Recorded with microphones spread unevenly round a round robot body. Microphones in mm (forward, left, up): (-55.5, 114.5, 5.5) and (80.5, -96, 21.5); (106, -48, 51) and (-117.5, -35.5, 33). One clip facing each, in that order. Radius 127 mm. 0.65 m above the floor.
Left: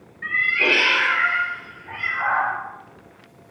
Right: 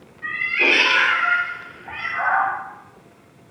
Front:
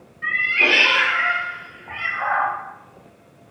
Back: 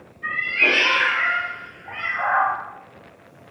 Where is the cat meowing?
25° left, 0.7 m; by 2.5 s 65° right, 1.1 m.